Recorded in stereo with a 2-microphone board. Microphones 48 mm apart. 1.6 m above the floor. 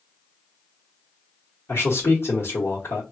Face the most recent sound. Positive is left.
turn(degrees=60)  # may be behind; listen again after turning